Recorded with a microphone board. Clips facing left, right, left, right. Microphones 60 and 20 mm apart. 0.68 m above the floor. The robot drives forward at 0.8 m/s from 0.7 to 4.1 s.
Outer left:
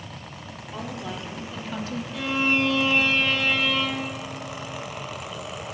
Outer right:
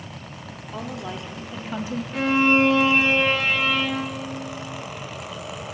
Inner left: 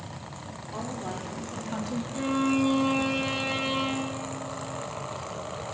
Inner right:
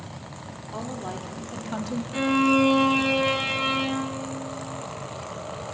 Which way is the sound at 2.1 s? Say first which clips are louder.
Outer right 6 dB, inner right 6 dB; 45° right (ahead or behind).